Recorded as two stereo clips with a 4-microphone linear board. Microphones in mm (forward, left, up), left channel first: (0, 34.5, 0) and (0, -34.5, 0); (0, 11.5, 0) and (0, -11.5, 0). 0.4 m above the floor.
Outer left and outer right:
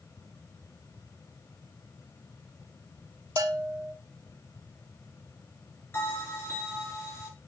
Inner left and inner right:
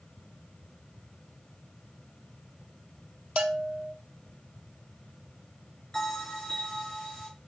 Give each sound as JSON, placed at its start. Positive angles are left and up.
{"t": 3.4, "sound": "a bell", "side_deg": -60, "distance_m": 0.5}
{"t": 5.9, "sound": "a bell", "side_deg": 40, "distance_m": 2.5}